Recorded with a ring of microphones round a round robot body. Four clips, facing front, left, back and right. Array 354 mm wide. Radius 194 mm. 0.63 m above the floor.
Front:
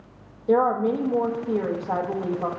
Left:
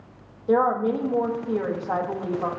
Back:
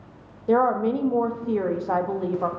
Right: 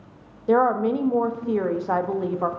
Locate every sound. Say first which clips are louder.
0.5 s a woman speaking: right 1 dB, even; 120° right, 0.9 m